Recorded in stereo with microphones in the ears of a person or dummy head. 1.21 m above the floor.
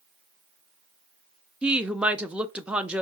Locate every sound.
1.6 s a woman speaking: 10° right (ahead or behind), 0.5 m